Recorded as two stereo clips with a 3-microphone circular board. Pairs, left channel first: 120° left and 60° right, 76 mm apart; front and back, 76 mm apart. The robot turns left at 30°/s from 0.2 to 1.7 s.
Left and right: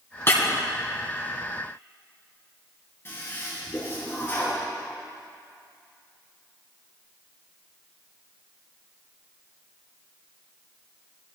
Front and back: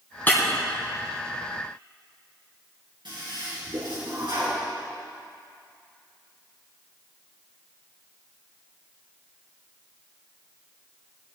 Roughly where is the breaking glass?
Ahead left.